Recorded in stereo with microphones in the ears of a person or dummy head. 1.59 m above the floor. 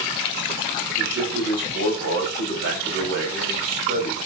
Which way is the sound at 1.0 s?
65° right (ahead or behind).